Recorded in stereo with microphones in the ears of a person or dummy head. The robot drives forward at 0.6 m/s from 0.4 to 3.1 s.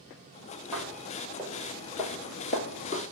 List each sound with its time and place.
0.7 s footsteps: centre (ahead or behind), 1.9 m; by 3.0 s 35° left (ahead or behind), 1.6 m